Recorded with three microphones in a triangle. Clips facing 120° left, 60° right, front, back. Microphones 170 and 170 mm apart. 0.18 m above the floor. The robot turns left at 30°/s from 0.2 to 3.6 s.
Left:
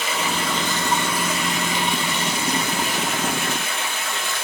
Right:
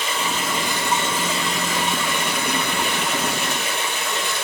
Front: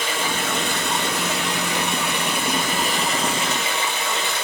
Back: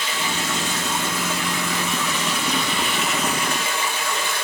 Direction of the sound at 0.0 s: 30° left.